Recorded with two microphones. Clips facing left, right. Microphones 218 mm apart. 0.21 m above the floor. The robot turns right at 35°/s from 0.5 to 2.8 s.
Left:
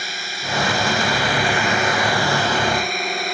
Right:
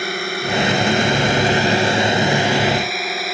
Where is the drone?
85° right; by 3.3 s 5° right.